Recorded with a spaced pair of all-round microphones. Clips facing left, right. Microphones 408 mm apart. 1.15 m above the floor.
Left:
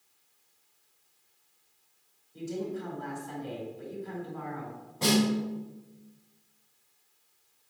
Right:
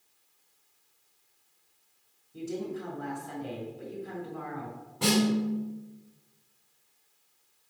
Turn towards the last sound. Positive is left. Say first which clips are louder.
# right 1 dB
turn(degrees=-25)  # may be behind; listen again after turning